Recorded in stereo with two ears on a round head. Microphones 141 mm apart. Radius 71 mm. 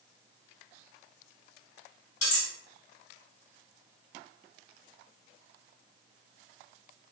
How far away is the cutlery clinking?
About 1.3 m.